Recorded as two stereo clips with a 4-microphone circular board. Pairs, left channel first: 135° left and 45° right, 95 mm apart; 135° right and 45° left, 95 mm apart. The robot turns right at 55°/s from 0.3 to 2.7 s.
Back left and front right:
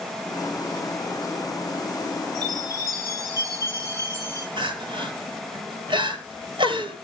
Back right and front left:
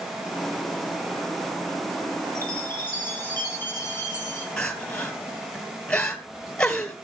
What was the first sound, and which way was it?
A chime, 10° right.